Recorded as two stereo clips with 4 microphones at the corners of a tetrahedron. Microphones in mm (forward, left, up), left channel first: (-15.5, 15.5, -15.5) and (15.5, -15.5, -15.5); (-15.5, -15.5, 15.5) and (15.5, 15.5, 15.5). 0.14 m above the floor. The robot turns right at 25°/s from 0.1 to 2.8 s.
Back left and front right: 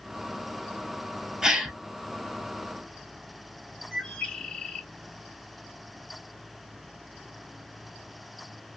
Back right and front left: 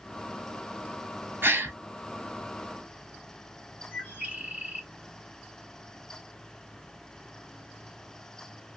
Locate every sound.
1.4 s a gasp: 25° left, 0.6 m; by 1.8 s 35° left, 0.6 m
3.9 s a bird: 70° left, 1.6 m